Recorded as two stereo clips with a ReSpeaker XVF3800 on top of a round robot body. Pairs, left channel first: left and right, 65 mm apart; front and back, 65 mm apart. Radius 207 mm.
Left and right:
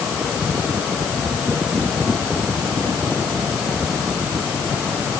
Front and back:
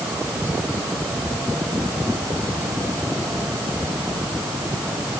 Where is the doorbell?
I don't hear a doorbell.